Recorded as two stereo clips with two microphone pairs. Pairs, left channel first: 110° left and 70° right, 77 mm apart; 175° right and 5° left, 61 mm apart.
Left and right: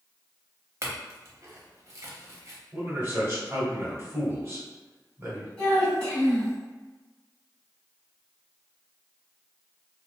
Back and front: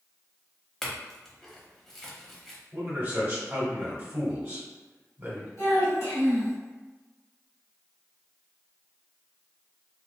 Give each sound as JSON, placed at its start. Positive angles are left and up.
{"t": 0.8, "sound": "a clink", "azimuth_deg": -90, "distance_m": 0.7}
{"t": 2.7, "sound": "a man speaking", "azimuth_deg": -25, "distance_m": 1.3}
{"t": 5.6, "sound": "a child speaking", "azimuth_deg": 180, "distance_m": 1.6}